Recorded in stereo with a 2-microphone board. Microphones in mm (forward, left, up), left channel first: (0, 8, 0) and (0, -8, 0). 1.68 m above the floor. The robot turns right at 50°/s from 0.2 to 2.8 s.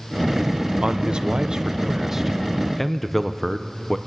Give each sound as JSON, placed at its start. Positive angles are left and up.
{"t": 0.8, "sound": "a man speaking", "azimuth_deg": -95, "distance_m": 0.9}